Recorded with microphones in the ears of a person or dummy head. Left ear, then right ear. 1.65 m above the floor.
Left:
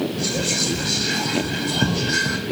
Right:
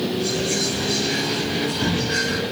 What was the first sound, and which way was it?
Whispering, 75° left (ahead or behind).